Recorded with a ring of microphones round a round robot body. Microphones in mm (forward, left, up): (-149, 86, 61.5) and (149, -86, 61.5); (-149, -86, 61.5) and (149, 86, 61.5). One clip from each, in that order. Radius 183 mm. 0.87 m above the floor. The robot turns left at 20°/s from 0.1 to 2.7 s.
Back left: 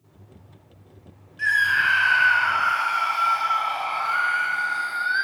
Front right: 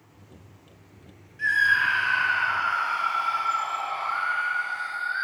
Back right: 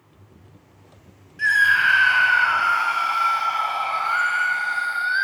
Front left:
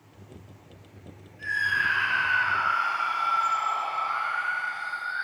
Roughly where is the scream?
Behind right.